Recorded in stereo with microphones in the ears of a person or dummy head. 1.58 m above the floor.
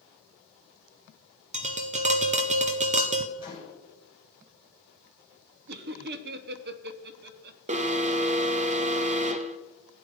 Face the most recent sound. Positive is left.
turn(degrees=-30)  # may be behind; listen again after turning